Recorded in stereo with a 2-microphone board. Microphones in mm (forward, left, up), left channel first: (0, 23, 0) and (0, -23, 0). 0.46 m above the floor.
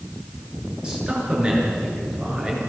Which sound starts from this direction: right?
A man speaking, at 0.8 s.